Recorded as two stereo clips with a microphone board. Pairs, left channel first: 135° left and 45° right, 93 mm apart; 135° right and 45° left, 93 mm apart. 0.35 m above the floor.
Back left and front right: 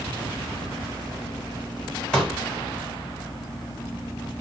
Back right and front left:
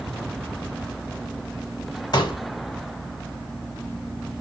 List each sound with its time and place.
2.1 s a pop: 145° right, 1.4 m